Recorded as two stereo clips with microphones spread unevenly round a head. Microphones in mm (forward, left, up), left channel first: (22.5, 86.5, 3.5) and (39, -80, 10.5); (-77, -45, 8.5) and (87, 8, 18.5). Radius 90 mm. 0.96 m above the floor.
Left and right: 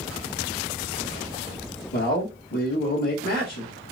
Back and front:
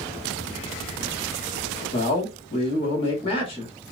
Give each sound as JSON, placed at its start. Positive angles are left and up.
{"t": 1.9, "sound": "a man speaking", "azimuth_deg": 140, "distance_m": 1.6}